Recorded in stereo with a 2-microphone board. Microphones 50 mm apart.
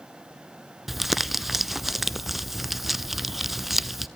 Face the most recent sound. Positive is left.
turn(degrees=-5)  # may be behind; listen again after turning